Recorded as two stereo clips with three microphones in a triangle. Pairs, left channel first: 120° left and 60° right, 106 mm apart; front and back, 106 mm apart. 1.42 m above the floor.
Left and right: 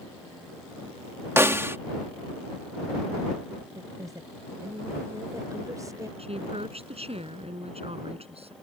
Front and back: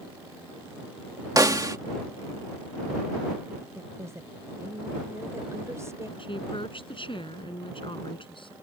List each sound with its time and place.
1.4 s a snare drum: 125° right
3.8 s a woman speaking: 120° right
6.2 s a woman speaking: 40° right